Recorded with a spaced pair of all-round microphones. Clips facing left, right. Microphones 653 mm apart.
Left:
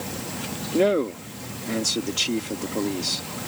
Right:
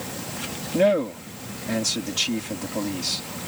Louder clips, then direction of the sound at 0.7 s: Even; 20° right (ahead or behind).